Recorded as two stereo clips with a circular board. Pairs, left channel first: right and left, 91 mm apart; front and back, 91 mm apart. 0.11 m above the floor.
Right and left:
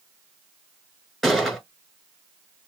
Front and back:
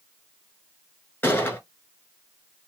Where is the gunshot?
5° right, 1.4 m.